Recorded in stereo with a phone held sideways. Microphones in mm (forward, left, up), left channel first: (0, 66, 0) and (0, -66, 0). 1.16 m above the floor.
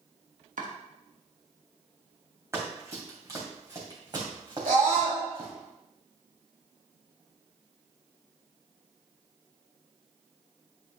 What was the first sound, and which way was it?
Chopping, 85° right.